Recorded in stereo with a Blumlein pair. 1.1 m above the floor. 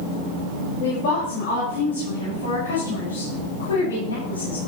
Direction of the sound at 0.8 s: 45° left.